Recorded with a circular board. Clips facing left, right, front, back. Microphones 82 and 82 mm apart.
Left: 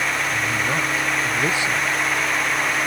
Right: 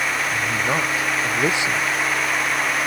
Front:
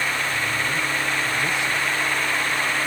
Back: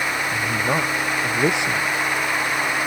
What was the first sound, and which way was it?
A man speaking, 160° right.